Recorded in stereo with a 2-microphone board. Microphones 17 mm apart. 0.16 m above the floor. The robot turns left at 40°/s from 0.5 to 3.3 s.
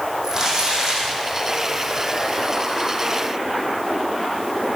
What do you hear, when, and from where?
0.2 s crumpling: 30° right (ahead or behind), 4.5 m; by 1.1 s 55° right (ahead or behind), 4.5 m